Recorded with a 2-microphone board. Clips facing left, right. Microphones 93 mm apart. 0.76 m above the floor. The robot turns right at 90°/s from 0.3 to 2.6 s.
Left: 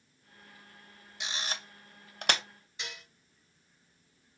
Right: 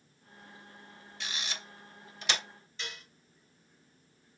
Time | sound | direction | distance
1.2 | a camera shutter | 15° left (ahead or behind) | 0.5 m
2.8 | dishes clattering | 15° left (ahead or behind) | 2 m